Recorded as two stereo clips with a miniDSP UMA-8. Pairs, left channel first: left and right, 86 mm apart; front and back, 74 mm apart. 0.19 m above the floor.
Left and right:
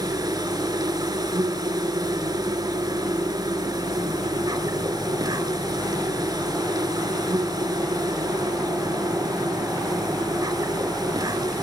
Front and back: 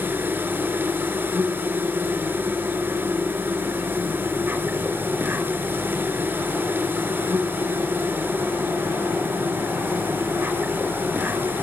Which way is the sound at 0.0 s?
120° right.